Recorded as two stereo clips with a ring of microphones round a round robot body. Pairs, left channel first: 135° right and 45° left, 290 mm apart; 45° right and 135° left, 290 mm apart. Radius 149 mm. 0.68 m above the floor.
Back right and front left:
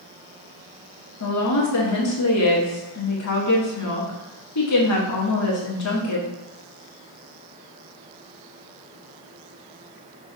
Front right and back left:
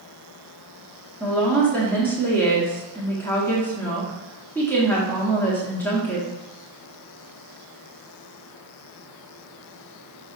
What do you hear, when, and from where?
1.2 s a woman speaking: 130° right, 1.5 m